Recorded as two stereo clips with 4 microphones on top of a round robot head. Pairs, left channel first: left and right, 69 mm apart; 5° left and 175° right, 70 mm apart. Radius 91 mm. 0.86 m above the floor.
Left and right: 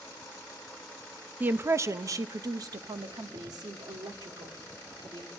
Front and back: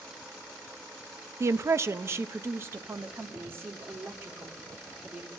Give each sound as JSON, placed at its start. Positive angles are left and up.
{"t": 1.4, "sound": "a woman speaking", "azimuth_deg": -150, "distance_m": 0.5}